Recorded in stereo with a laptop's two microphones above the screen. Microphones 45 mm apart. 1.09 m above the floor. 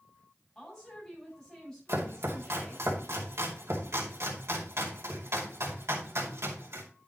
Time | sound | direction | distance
0.6 | a woman speaking | 20° left (ahead or behind) | 7 m
1.9 | chopping | 85° right | 2.5 m